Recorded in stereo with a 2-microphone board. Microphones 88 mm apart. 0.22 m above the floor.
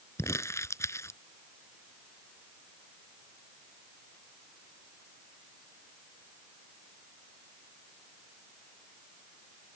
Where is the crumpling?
30° left (ahead or behind).